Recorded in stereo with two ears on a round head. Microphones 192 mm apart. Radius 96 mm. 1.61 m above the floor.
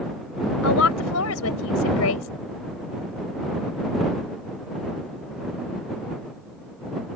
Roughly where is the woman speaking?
Left.